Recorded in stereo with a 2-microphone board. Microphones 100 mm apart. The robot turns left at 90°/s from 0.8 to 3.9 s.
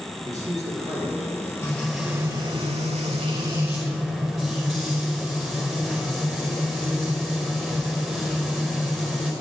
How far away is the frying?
About 4.5 m.